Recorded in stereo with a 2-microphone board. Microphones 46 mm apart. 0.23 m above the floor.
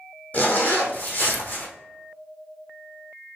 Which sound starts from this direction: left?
A zipper, at 0.3 s.